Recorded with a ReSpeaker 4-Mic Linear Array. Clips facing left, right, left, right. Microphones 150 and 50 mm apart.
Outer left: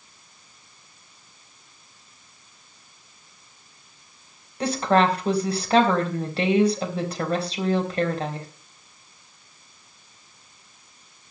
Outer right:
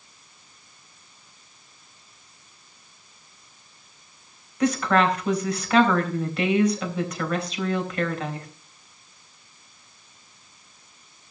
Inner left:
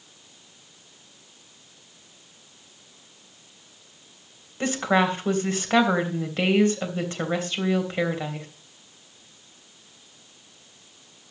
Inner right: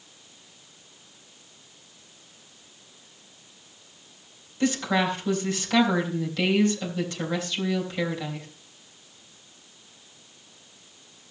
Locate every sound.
4.6 s a woman speaking: 30° left (ahead or behind), 3.5 m